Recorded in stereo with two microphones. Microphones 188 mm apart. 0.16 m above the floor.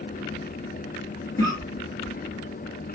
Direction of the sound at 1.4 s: 20° left (ahead or behind).